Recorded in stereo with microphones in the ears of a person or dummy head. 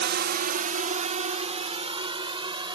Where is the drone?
55° right (ahead or behind); by 2.8 s 20° right (ahead or behind).